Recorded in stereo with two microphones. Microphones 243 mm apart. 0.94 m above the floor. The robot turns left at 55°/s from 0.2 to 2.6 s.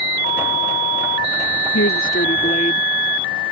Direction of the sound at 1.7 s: 80° left.